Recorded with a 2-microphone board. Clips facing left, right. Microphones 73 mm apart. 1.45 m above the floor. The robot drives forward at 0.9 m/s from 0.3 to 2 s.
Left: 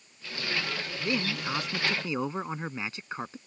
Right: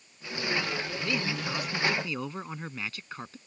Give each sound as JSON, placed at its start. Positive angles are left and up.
{"t": 1.0, "sound": "a man speaking", "side_deg": 20}